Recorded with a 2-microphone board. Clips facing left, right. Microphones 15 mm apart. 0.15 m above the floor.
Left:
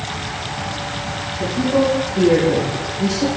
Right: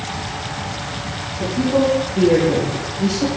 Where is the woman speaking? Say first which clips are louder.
Even; 5° left (ahead or behind), 5.5 m; by 3.3 s 5° right (ahead or behind), 3.5 m.